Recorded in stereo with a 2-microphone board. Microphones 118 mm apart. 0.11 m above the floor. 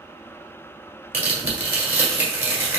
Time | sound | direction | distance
1.1 | tearing paper | 15° right (ahead or behind) | 1.7 m